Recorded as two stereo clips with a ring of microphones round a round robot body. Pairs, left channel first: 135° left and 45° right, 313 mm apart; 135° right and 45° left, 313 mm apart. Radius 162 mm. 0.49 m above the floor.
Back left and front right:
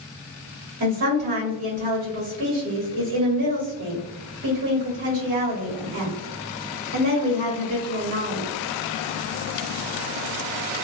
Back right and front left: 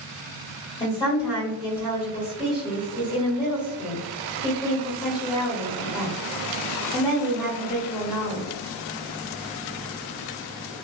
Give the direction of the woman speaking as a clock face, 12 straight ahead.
2 o'clock.